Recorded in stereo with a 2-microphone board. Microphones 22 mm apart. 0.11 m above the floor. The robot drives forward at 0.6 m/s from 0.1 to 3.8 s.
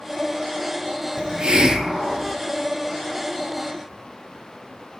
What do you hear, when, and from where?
1.2 s a hiss: 50° right (ahead or behind), 0.6 m; by 2.4 s 25° right (ahead or behind), 1.1 m